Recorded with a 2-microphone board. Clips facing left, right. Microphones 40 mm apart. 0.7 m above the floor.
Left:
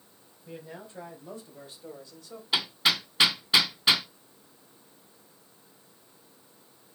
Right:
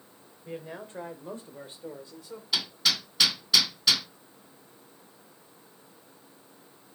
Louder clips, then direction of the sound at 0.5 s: Right 4 dB; 50° right (ahead or behind).